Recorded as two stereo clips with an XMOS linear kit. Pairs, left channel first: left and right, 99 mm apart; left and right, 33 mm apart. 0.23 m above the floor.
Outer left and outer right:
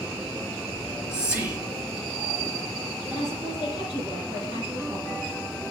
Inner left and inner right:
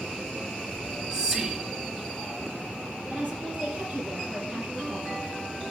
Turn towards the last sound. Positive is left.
turn(degrees=-30)  # may be behind; listen again after turning